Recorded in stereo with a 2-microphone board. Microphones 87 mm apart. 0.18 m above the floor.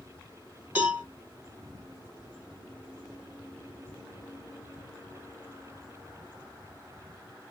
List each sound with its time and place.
0.8 s a cowbell: 15° right (ahead or behind), 1.7 m